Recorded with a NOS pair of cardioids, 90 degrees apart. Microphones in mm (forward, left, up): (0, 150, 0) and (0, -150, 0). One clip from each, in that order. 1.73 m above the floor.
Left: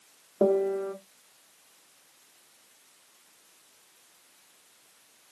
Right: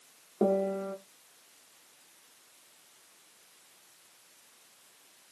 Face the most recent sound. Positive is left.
turn(degrees=15)